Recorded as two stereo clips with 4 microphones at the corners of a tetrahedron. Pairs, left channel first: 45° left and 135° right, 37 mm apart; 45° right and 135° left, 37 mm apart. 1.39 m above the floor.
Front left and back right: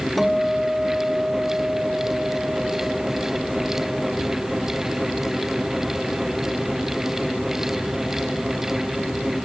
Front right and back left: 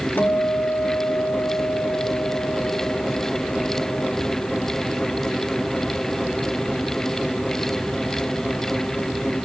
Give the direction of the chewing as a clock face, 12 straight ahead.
No chewing in this recording.